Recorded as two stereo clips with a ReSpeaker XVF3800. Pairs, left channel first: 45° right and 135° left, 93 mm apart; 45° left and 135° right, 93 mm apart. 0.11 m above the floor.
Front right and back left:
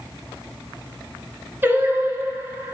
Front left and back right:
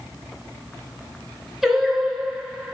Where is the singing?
145° left, 1.5 m.